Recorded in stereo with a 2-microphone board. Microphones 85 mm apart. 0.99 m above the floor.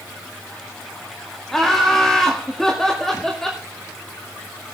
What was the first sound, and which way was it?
Laughter, 5° left (ahead or behind).